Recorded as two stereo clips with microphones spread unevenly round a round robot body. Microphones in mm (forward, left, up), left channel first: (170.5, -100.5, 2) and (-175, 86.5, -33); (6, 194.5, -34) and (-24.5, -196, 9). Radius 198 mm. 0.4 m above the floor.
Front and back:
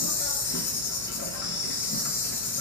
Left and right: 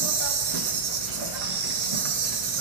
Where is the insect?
90° right, 0.7 m.